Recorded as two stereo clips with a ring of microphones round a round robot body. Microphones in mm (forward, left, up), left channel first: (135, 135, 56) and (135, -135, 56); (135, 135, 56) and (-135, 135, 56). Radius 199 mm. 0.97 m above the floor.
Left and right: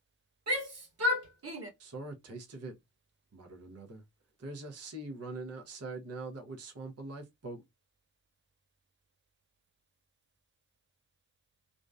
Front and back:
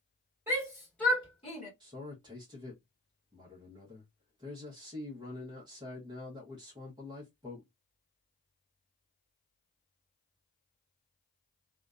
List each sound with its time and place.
0.5 s a shout: 100° right, 1.5 m; by 1.7 s 60° right, 1.2 m
1.8 s a man speaking: 105° right, 0.6 m